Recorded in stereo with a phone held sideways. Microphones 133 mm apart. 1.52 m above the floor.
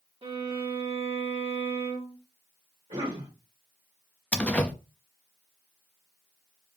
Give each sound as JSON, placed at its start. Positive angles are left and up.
{"t": 0.2, "sound": "a violin", "side_deg": -45, "distance_m": 1.5}
{"t": 2.9, "sound": "a cough", "side_deg": -50, "distance_m": 1.8}
{"t": 4.3, "sound": "a door slam", "side_deg": 10, "distance_m": 0.5}